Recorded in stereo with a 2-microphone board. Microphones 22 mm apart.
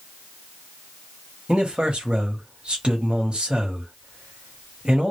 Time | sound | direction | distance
1.5 | a man speaking | 55° right (ahead or behind) | 1.0 m